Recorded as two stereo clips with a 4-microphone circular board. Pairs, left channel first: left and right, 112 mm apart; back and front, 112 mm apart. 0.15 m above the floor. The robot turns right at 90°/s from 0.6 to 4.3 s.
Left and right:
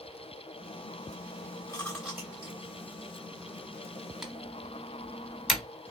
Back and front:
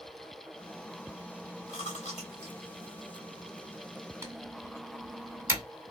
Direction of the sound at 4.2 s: 10° right.